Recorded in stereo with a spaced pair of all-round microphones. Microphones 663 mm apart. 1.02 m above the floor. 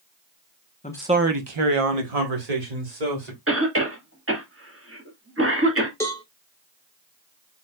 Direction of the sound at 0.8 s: 15° left (ahead or behind).